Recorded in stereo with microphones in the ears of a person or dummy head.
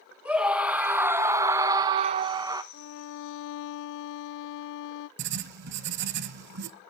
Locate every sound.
0.2 s a scream: 5° right (ahead or behind), 1.5 m; by 2.6 s 15° right (ahead or behind), 0.7 m
2.7 s a violin: 70° left (ahead or behind), 0.6 m
5.2 s writing: 55° right (ahead or behind), 0.6 m